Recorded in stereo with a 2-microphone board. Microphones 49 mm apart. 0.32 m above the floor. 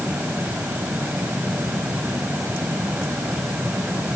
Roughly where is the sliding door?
No sliding door in this recording.